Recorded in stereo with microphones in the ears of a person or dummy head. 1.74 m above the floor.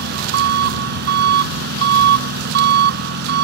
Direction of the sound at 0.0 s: 60° right (ahead or behind).